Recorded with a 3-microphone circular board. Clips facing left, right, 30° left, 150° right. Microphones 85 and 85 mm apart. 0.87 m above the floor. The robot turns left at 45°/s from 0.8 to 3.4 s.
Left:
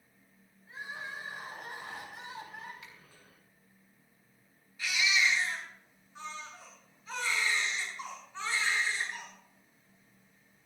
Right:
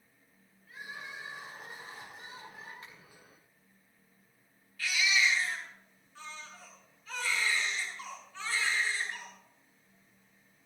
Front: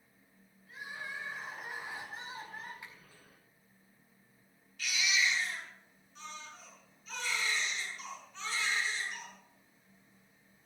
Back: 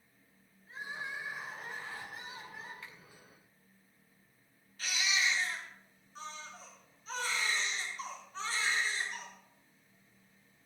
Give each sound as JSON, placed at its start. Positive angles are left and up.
{"t": 0.7, "sound": "crying", "azimuth_deg": 150, "distance_m": 6.5}
{"t": 2.8, "sound": "a finger snap", "azimuth_deg": -40, "distance_m": 5.0}
{"t": 4.8, "sound": "a baby crying", "azimuth_deg": 160, "distance_m": 7.0}